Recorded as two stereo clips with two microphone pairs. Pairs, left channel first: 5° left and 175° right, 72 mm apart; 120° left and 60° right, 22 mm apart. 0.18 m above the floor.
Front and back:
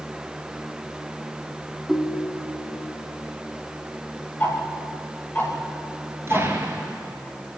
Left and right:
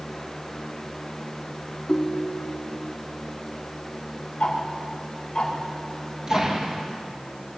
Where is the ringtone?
100° left, 1.0 m.